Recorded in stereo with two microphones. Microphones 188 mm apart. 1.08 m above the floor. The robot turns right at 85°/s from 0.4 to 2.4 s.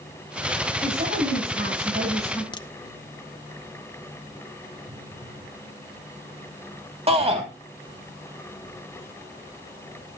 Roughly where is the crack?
Left.